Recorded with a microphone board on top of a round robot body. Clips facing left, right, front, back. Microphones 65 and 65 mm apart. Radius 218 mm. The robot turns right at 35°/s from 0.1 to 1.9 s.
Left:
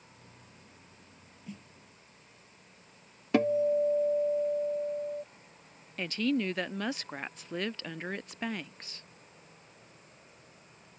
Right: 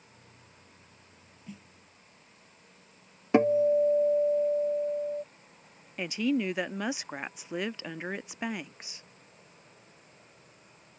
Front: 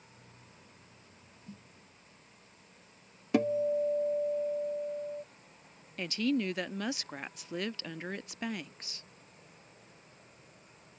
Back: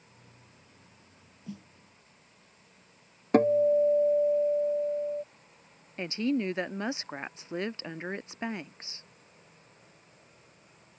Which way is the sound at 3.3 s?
150° right.